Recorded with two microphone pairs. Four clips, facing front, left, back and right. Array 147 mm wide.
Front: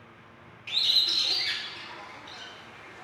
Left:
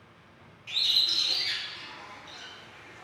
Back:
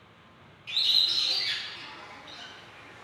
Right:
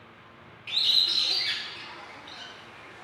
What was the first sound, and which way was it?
A bird, 40° right.